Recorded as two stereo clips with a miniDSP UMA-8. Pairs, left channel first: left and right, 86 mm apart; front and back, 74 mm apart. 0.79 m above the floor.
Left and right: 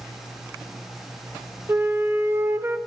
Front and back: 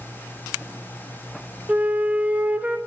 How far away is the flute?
About 0.9 m.